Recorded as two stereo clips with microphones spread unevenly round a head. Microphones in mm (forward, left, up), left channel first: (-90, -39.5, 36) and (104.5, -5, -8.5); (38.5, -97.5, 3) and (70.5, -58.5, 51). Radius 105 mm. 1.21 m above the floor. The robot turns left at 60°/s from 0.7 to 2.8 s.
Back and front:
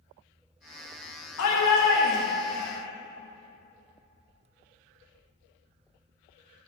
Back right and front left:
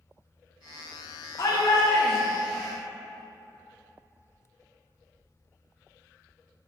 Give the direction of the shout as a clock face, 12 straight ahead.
6 o'clock.